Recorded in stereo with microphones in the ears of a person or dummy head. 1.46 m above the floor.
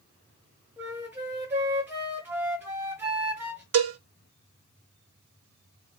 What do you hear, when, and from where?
0.8 s a flute: 15° right (ahead or behind), 1.1 m
3.7 s a cowbell: 65° right (ahead or behind), 0.8 m